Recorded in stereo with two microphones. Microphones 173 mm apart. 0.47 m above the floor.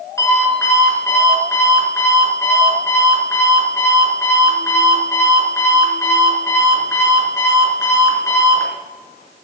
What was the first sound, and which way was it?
An alarm clock, 15° left (ahead or behind).